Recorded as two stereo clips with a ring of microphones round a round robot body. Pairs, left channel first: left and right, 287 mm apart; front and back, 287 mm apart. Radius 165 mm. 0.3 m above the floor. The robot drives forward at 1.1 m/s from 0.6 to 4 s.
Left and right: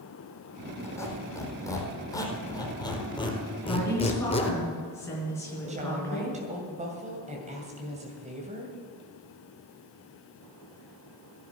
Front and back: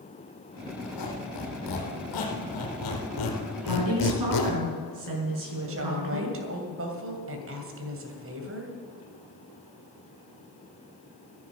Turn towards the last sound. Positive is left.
turn(degrees=-155)